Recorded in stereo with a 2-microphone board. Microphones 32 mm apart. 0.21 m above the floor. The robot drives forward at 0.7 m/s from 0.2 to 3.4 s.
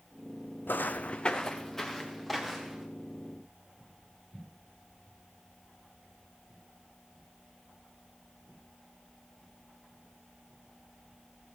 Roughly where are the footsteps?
Left.